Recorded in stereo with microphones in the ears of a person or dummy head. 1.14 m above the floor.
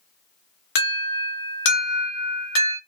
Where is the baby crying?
I don't hear a baby crying.